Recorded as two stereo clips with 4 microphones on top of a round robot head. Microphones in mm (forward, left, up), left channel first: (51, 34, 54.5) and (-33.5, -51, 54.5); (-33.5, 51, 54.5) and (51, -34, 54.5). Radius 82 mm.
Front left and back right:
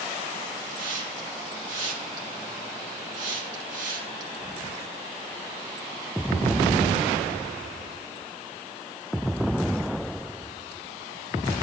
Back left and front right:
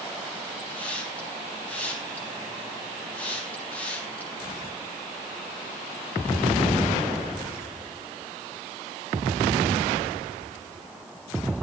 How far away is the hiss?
About 3 m.